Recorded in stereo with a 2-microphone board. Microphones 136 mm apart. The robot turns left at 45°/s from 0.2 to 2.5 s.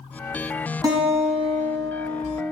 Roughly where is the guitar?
Ahead right.